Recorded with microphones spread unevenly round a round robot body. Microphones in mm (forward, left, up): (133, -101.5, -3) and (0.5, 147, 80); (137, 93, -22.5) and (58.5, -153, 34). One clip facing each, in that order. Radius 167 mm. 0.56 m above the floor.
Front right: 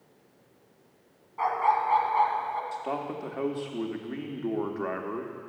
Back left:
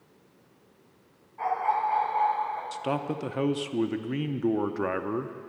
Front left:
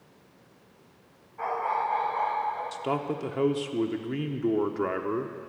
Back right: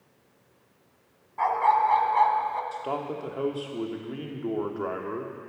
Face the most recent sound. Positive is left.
turn(degrees=85)